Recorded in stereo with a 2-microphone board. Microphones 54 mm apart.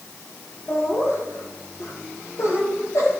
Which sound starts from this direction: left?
Laughter, at 0.7 s.